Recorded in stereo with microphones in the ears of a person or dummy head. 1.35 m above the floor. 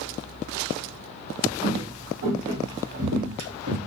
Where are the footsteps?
55° right (ahead or behind), 2.5 m; by 3.8 s 65° right (ahead or behind), 4 m.